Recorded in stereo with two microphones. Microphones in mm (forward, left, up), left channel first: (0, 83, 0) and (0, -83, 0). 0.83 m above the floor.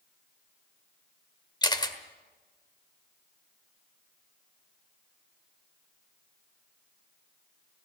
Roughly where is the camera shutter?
Left.